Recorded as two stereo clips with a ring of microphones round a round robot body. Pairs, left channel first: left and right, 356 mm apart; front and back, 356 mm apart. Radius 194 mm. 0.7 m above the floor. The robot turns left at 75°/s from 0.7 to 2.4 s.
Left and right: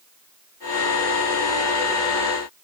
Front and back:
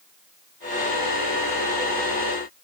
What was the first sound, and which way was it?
Only background noise.